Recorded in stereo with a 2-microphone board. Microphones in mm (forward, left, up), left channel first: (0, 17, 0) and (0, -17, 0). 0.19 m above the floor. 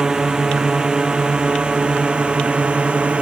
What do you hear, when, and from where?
0.0 s a drone: 20° right (ahead or behind); by 3.2 s 35° right (ahead or behind)